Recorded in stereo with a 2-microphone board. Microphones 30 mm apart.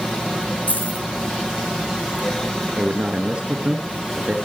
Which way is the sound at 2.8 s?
35° right (ahead or behind).